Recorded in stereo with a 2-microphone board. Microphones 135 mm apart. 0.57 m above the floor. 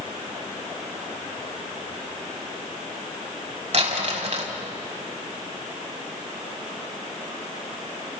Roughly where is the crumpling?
Right.